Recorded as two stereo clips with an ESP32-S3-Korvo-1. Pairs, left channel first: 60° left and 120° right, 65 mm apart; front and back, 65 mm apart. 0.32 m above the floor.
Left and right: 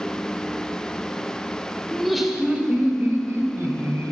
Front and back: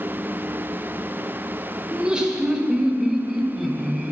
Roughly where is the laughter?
Behind left.